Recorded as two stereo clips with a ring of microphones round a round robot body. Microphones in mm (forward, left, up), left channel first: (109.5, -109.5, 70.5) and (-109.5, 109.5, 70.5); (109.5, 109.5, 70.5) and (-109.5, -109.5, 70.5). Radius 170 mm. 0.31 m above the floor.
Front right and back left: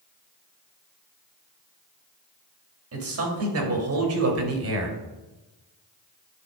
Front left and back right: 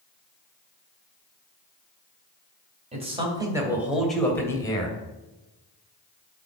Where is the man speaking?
160° left, 2.5 m; by 5.0 s 115° left, 2.5 m.